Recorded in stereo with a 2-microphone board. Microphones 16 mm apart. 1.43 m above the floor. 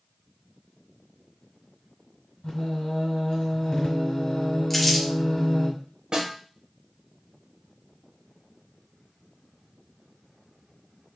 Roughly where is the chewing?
No chewing in this recording.